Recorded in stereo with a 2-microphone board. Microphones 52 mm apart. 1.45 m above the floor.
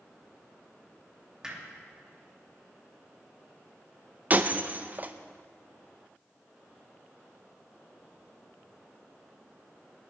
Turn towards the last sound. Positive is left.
turn(degrees=-35)  # may be behind; listen again after turning